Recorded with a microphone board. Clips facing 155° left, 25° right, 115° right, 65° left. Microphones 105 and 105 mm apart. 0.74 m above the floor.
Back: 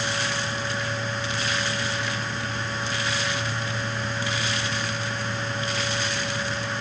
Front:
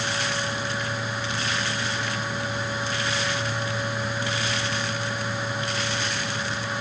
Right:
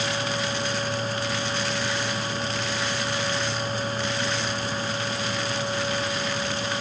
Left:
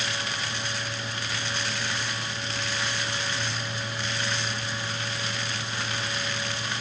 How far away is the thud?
I don't hear a thud.